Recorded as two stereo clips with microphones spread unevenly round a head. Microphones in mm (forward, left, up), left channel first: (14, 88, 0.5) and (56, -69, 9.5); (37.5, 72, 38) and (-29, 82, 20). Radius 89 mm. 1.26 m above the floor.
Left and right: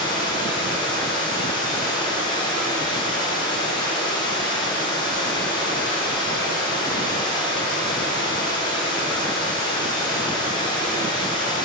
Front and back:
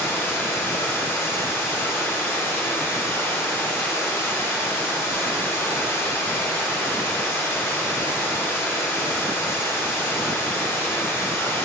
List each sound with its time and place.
0.0 s running water: 40° left, 6.5 m